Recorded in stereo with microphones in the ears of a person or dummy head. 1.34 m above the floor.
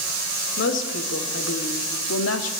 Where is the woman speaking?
70° left (ahead or behind), 4 m; by 2.5 s 90° left, 2.5 m.